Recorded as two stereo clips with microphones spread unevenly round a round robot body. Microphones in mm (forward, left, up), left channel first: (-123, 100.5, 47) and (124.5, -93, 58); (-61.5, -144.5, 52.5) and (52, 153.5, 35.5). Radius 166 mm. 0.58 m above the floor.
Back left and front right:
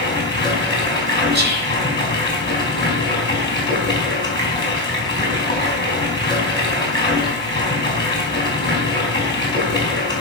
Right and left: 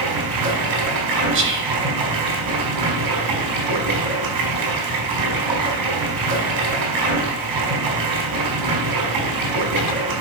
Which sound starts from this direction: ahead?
Whispering, at 1.3 s.